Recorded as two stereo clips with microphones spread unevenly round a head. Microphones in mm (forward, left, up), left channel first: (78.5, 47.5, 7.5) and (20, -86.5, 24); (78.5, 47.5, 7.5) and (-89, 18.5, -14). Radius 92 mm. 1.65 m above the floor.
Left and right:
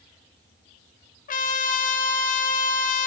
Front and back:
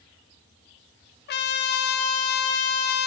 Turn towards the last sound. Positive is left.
turn(degrees=40)